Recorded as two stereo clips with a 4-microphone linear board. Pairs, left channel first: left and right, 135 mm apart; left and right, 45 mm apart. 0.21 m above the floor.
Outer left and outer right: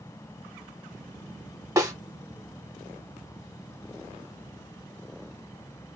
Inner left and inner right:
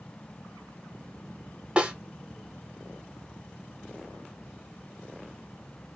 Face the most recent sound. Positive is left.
turn(degrees=-25)  # may be behind; listen again after turning